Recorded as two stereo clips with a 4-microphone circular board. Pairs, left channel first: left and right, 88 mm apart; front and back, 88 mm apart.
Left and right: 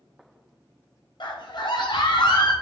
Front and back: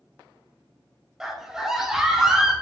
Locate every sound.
1.2 s a scream: 100° left, 0.7 m